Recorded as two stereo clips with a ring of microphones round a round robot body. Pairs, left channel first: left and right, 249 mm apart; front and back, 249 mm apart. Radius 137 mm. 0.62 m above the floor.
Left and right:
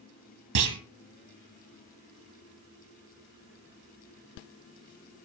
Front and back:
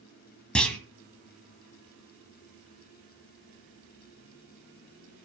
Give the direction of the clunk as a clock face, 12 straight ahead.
3 o'clock.